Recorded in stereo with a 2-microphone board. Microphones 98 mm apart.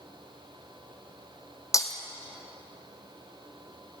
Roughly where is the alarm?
No alarm in this recording.